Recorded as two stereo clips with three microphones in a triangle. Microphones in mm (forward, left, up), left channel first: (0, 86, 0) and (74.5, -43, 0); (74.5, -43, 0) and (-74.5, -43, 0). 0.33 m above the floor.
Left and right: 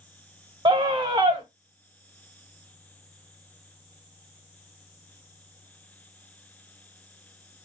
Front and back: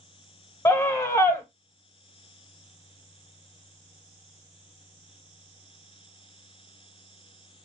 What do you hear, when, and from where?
0.7 s a scream: 55° right, 1.0 m